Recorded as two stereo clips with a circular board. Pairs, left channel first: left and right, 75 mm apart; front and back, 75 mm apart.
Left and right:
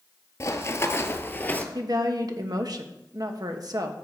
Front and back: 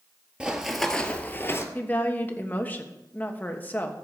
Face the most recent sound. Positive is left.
turn(degrees=-65)